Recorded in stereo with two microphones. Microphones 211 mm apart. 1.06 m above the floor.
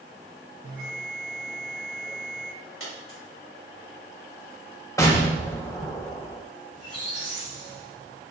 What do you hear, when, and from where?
0.6 s a bell: 45° right (ahead or behind), 2 m
2.8 s a dropped coin: 80° left, 2.0 m
5.0 s an explosion: 15° left (ahead or behind), 0.8 m
6.7 s a squeak: 60° left (ahead or behind), 2 m